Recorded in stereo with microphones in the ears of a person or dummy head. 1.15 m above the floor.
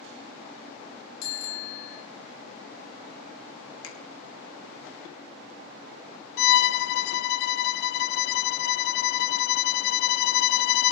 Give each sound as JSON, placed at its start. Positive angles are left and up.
{"t": 1.2, "sound": "a bicycle bell", "side_deg": 85, "distance_m": 5.0}
{"t": 3.8, "sound": "a finger snap", "side_deg": 75, "distance_m": 2.5}
{"t": 6.4, "sound": "a violin", "side_deg": 65, "distance_m": 0.6}